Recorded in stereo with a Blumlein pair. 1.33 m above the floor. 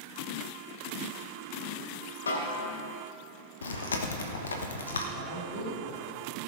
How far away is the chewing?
About 1.1 m.